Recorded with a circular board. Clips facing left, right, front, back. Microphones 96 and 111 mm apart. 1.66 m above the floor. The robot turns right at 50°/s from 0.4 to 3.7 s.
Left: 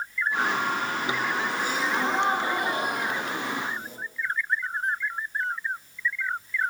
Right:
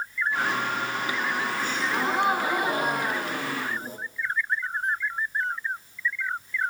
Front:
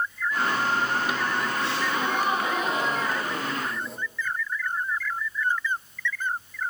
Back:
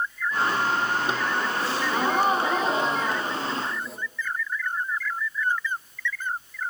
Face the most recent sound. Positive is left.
turn(degrees=-90)